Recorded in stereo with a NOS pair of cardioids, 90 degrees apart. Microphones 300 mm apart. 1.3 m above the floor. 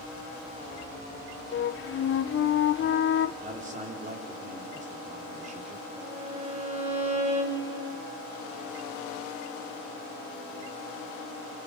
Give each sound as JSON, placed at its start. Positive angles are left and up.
{"t": 1.5, "sound": "a flute", "azimuth_deg": 45, "distance_m": 0.8}
{"t": 3.4, "sound": "a man speaking", "azimuth_deg": -25, "distance_m": 4.5}
{"t": 6.0, "sound": "a violin", "azimuth_deg": -20, "distance_m": 4.5}